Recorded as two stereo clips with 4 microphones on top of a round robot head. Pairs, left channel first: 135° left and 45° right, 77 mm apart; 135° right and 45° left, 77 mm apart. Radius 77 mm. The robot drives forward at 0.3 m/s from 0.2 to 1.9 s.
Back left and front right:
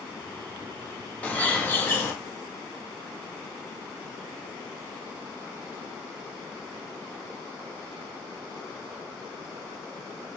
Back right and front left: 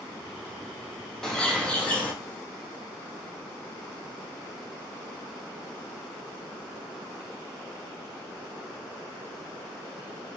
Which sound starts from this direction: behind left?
A bird, at 1.2 s.